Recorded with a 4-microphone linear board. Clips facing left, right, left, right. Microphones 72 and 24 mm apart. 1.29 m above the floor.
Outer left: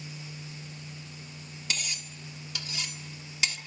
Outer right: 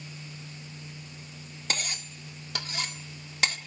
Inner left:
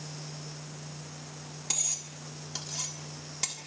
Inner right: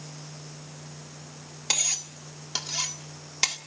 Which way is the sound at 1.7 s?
50° right (ahead or behind).